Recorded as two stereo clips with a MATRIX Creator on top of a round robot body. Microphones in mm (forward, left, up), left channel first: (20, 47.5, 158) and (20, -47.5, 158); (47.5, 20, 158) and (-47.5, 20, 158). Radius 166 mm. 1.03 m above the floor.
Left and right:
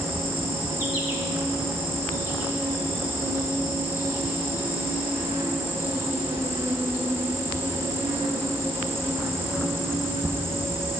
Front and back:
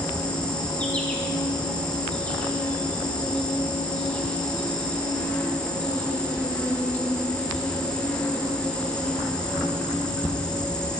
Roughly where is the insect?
Right.